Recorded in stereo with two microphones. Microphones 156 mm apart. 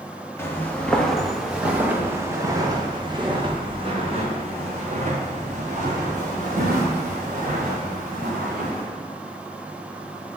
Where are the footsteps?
15° left (ahead or behind), 1.9 m; by 8.8 s 65° right (ahead or behind), 5 m.